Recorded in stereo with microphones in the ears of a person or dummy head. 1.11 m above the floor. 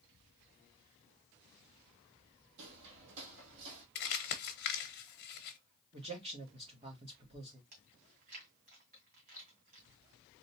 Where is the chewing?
50° right (ahead or behind), 2 m.